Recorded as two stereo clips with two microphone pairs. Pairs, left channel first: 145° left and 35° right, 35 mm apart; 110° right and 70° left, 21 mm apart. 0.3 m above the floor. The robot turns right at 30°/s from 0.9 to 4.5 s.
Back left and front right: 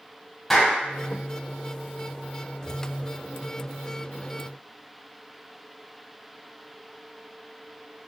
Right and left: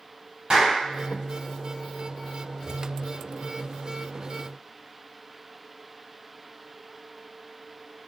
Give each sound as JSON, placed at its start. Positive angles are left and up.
{"t": 0.5, "sound": "a clap", "azimuth_deg": 60, "distance_m": 1.7}